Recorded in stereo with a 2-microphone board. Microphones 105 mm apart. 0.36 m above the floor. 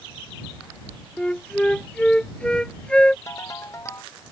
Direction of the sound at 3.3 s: 30° left (ahead or behind).